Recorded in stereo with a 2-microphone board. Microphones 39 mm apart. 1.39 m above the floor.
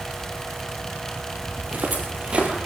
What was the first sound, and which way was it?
Footsteps, 45° right (ahead or behind).